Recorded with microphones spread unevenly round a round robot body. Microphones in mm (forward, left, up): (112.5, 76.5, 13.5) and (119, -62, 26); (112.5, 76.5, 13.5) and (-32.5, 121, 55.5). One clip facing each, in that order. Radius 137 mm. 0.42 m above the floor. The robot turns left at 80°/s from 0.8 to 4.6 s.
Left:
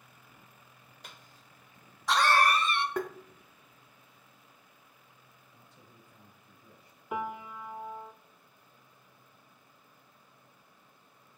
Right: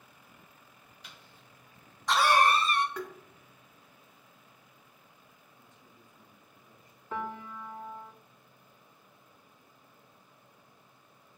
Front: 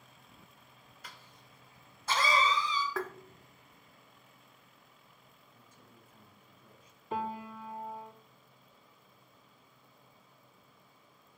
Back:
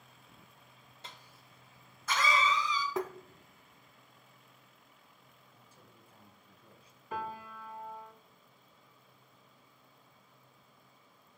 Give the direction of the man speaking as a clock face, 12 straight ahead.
9 o'clock.